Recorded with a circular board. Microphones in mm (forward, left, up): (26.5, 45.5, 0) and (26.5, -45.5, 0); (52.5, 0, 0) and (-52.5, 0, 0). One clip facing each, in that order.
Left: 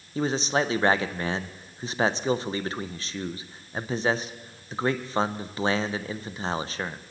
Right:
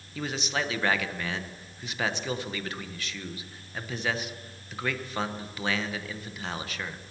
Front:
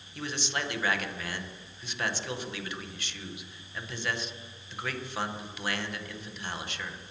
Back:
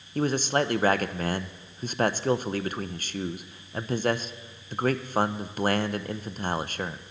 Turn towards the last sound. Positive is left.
turn(degrees=140)